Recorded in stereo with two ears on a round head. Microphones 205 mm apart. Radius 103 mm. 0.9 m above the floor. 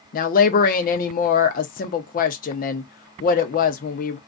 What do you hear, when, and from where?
0.1 s a woman speaking: 40° left (ahead or behind), 0.5 m